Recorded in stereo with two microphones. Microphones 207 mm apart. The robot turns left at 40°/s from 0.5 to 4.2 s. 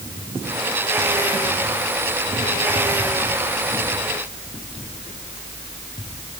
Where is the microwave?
I don't hear a microwave.